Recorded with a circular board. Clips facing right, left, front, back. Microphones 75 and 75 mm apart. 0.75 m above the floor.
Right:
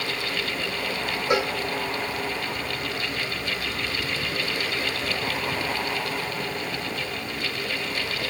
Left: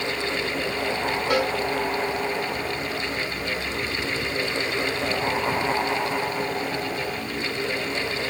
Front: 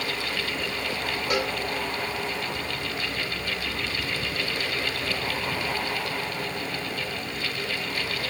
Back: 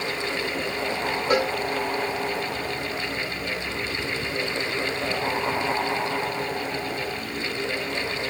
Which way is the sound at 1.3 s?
145° right.